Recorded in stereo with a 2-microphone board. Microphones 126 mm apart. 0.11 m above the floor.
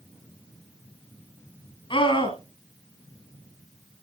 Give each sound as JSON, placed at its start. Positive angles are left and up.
{"t": 1.9, "sound": "a scream", "side_deg": 40, "distance_m": 1.5}